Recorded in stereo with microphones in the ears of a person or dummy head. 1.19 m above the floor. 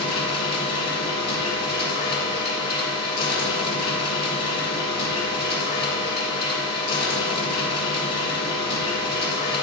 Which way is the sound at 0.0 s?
60° left (ahead or behind).